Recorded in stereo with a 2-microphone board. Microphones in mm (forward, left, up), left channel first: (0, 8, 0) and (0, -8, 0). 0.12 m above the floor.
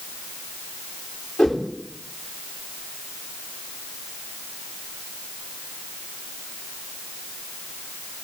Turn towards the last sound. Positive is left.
turn(degrees=75)  # may be behind; listen again after turning